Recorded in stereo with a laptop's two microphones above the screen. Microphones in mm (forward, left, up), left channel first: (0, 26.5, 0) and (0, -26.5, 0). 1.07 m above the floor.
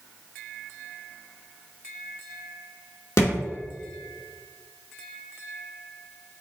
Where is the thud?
60° left (ahead or behind), 1.3 m.